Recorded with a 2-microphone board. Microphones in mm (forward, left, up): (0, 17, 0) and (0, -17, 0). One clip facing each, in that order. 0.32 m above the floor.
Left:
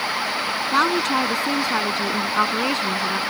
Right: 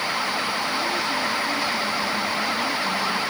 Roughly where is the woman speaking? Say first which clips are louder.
Left 5 dB; left.